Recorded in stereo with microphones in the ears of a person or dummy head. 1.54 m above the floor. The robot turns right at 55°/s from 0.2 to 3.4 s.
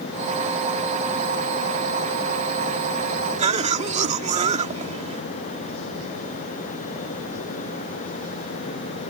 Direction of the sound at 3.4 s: 30° right (ahead or behind).